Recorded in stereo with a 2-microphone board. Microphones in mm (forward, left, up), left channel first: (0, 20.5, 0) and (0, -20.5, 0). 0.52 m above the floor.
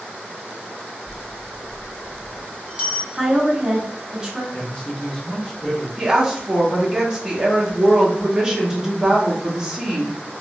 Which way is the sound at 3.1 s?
20° right (ahead or behind).